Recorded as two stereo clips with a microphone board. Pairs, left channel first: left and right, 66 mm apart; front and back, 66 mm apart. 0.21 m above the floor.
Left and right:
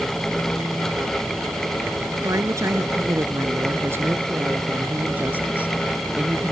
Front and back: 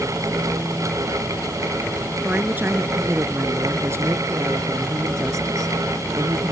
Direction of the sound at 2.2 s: 120° right.